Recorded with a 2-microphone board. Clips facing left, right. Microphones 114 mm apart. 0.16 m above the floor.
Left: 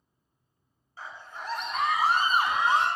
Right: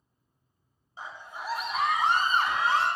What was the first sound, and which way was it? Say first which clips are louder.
A scream: right 1 dB; 20° right (ahead or behind).